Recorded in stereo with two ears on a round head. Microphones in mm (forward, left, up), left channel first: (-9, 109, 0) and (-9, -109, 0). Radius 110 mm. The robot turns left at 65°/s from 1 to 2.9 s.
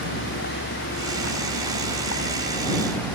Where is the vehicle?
130° left; by 3.2 s 10° left.